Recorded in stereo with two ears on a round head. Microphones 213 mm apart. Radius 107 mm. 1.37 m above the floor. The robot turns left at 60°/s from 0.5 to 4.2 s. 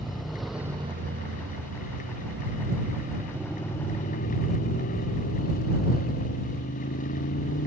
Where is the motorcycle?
Straight ahead; by 7.7 s 140° left.